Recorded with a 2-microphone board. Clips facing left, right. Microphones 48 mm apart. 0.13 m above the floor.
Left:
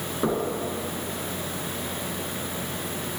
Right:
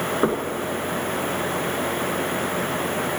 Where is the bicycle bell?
No bicycle bell in this recording.